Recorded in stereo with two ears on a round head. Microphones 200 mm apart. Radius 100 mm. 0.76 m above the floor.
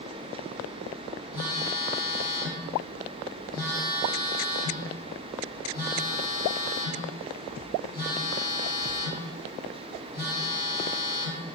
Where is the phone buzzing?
20° left (ahead or behind), 1.5 m.